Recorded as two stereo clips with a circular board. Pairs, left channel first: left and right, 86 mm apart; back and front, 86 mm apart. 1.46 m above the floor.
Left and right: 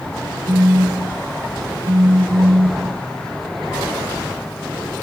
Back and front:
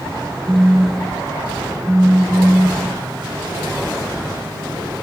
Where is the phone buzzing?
75° right, 1.7 m.